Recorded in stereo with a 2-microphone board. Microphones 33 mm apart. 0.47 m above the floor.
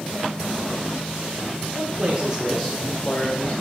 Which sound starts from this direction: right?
A man speaking, at 1.8 s.